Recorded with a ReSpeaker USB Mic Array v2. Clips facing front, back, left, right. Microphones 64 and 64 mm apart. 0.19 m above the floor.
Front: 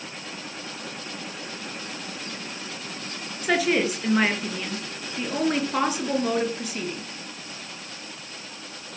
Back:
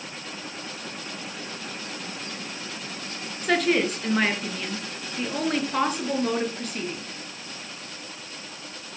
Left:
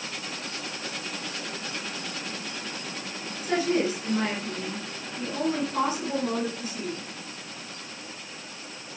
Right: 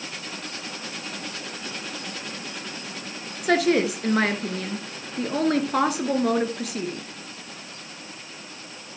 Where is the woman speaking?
85° right, 2.5 m.